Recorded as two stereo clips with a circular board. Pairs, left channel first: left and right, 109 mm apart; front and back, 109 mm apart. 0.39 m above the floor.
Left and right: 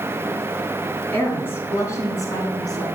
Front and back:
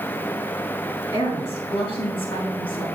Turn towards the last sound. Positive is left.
turn(degrees=40)